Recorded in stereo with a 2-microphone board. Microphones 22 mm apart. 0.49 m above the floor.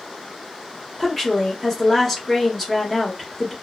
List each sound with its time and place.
1.0 s a woman speaking: 15° left (ahead or behind), 1.0 m